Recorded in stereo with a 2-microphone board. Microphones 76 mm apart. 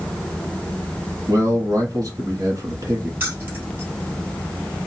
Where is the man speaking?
50° right (ahead or behind), 2.5 m.